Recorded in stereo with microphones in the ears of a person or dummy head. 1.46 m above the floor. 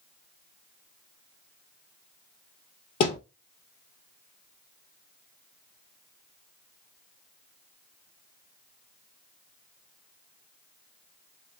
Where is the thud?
40° left (ahead or behind), 1.9 m.